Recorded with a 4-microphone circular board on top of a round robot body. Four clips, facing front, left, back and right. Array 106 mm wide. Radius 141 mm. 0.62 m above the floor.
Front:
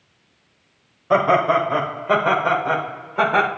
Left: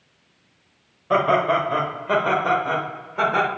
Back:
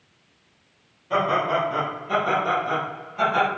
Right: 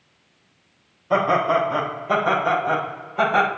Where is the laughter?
30° left, 4 m; by 3.5 s 5° left, 3 m.